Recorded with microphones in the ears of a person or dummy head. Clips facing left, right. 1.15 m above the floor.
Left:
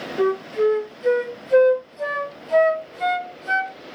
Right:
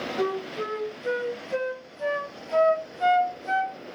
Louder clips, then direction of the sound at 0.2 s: Left 10 dB; 65° left (ahead or behind).